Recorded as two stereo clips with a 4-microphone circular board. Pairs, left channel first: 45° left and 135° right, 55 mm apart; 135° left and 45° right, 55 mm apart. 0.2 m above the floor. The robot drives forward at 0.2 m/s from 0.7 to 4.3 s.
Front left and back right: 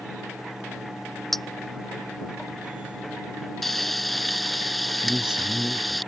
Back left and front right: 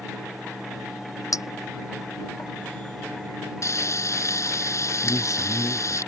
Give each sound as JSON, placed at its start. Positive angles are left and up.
{"t": 1.3, "sound": "a clink", "azimuth_deg": 130}
{"t": 3.6, "sound": "frying", "azimuth_deg": 130}
{"t": 5.0, "sound": "a man speaking", "azimuth_deg": 145}